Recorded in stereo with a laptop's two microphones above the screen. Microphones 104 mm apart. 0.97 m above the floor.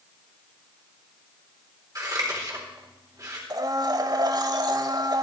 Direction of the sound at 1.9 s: 35° right (ahead or behind).